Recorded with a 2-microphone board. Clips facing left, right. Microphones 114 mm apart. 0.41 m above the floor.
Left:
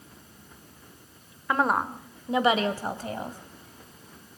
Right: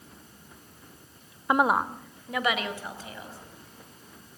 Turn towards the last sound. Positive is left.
turn(degrees=50)  # may be behind; listen again after turning